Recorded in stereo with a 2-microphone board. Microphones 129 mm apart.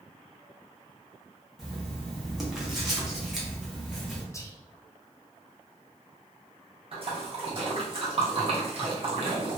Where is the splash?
45° right (ahead or behind), 0.7 m.